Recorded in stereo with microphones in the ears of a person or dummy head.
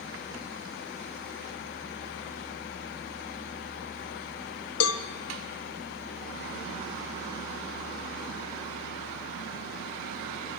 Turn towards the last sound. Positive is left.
turn(degrees=85)